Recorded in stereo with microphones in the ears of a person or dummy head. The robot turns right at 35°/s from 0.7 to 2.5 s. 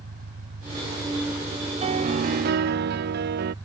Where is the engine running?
85° right; by 3.6 s 25° right.